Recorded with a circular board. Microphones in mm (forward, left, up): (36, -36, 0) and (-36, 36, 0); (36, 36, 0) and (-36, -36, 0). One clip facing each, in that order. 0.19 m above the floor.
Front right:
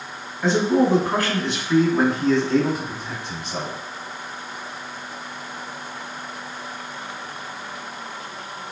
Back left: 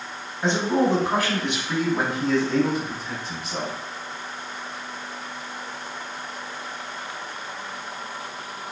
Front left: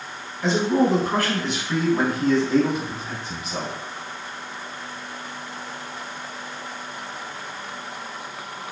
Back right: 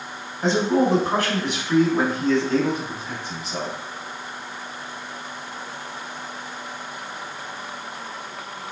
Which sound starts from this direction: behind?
A man speaking, at 0.4 s.